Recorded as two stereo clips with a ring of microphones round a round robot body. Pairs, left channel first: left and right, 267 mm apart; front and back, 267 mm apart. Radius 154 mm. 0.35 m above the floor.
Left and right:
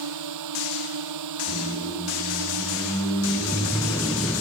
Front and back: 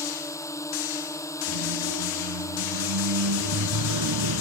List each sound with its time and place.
0.0 s a drone: 80° right
1.5 s a squeak: 175° left